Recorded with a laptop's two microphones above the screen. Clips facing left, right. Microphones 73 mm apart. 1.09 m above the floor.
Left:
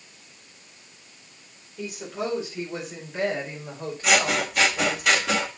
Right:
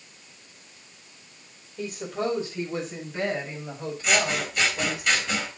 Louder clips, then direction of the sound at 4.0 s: Left 3 dB; 80° left.